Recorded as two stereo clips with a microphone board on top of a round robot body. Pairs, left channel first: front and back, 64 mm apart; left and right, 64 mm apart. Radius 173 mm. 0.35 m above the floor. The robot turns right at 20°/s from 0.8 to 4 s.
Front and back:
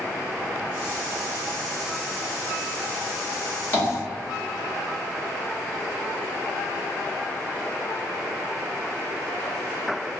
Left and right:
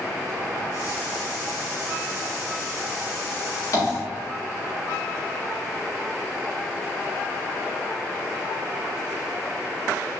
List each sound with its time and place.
3.7 s tapping: 60° left, 1.8 m